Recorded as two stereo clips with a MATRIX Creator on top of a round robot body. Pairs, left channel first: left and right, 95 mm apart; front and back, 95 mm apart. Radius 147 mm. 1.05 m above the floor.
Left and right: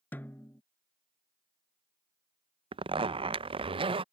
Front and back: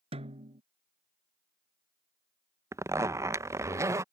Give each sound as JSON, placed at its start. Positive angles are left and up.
{"t": 0.1, "sound": "a snare drum", "azimuth_deg": 165}
{"t": 2.7, "sound": "a zipper", "azimuth_deg": -120}